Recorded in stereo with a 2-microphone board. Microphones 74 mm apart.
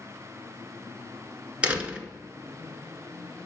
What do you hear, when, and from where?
1.6 s a door slam: 15° right (ahead or behind), 1.0 m